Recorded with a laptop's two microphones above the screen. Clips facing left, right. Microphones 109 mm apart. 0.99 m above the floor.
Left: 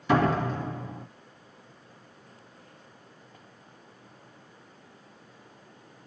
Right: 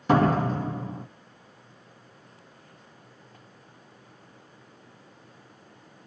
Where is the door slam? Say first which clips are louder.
Right 2 dB; 45° right (ahead or behind), 1.0 m.